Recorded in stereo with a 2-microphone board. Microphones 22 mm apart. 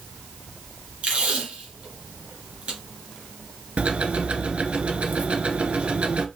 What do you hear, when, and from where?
1.0 s tape being pulled: 70° right (ahead or behind), 2.5 m
3.8 s ticking: 70° right (ahead or behind), 0.8 m